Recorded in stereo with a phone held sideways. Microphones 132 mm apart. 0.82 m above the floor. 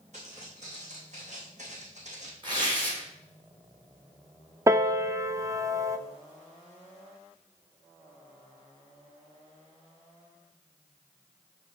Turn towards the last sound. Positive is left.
turn(degrees=-25)  # may be behind; listen again after turning